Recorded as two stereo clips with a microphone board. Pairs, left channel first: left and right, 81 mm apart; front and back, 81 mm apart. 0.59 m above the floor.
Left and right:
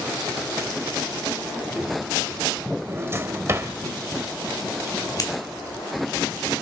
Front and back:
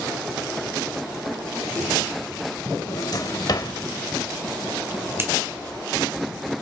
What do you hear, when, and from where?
2.9 s a drawer: 35° right, 1.3 m
5.2 s scissors: 125° left, 2.5 m